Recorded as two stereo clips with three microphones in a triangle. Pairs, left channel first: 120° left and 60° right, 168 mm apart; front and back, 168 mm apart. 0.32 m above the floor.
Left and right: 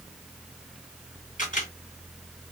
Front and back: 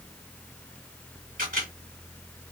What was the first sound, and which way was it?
A camera shutter, 155° left.